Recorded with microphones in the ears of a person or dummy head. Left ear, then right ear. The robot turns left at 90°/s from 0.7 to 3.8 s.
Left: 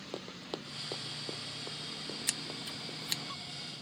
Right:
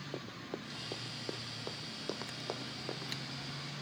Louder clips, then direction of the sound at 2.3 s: Left 3 dB; 55° left (ahead or behind).